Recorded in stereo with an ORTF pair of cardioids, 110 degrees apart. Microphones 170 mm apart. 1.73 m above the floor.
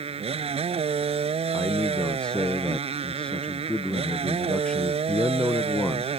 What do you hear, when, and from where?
0.0 s a motorcycle: 40° right
1.5 s a man speaking: 5° left